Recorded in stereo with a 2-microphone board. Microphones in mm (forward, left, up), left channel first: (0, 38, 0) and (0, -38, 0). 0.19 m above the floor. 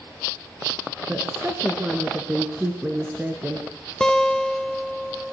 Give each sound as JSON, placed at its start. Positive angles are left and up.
{"t": 1.1, "sound": "a woman speaking", "side_deg": -25, "distance_m": 3.0}
{"t": 4.0, "sound": "a guitar", "side_deg": 10, "distance_m": 0.9}